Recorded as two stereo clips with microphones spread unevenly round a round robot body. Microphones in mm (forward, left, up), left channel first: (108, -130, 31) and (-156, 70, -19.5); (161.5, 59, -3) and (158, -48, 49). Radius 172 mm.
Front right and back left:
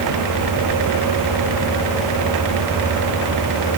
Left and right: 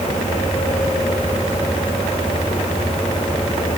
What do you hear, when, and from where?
Only background noise.